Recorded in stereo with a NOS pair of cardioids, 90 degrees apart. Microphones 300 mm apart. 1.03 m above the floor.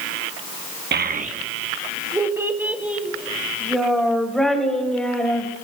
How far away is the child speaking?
About 1.0 m.